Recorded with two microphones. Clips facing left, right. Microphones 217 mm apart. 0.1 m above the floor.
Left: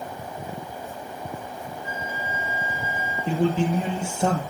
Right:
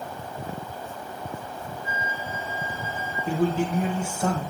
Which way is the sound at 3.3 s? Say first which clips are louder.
Left 2 dB; 25° left (ahead or behind).